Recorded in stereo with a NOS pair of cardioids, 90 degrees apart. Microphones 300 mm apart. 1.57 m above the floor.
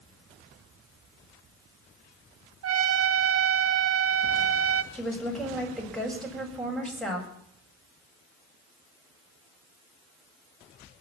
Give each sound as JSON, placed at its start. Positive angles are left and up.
{"t": 2.6, "sound": "a trumpet", "azimuth_deg": -50, "distance_m": 0.9}
{"t": 4.9, "sound": "a woman speaking", "azimuth_deg": 0, "distance_m": 7.0}